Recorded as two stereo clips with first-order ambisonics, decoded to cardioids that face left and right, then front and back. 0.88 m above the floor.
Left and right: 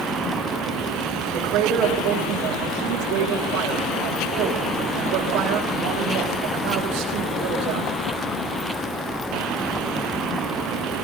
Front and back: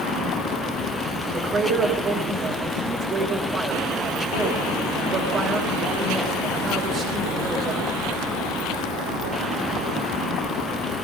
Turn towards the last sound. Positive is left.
turn(degrees=-115)